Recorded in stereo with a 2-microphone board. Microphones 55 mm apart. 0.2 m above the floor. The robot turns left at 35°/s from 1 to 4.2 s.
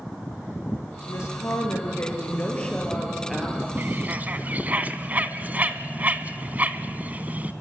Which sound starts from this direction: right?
A bird, at 3.8 s.